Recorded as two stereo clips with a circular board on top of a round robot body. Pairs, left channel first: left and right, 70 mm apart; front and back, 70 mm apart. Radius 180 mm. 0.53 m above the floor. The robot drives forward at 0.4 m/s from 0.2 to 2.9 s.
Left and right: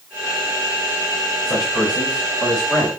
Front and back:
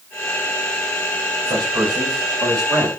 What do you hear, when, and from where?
1.4 s a man speaking: 160° left, 3.5 m